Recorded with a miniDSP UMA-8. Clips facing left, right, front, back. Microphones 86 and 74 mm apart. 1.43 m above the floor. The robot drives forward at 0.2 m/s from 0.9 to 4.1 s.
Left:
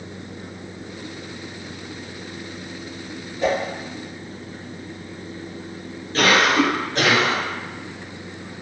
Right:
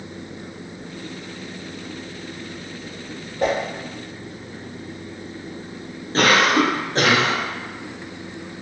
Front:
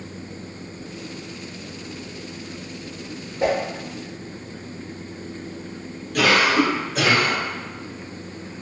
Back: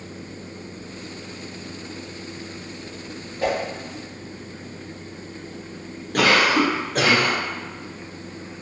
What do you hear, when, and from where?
3.4 s a whoosh: 65° right, 0.7 m; by 3.6 s 70° right, 0.7 m
6.1 s a cough: 145° right, 0.8 m